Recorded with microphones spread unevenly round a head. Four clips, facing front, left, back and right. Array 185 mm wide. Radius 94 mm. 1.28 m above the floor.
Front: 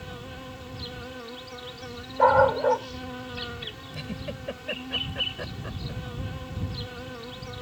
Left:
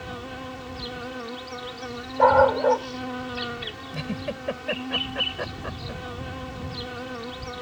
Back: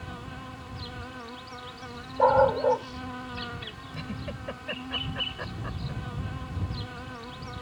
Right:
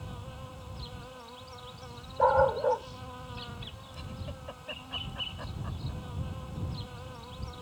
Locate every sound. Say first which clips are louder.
0.0 s an insect: left 10 dB, front 1 dB; 90° left
2.2 s a dog barking: left 7 dB, front 2 dB; 90° left
3.9 s a giggle: left 14 dB, front 1 dB; 85° left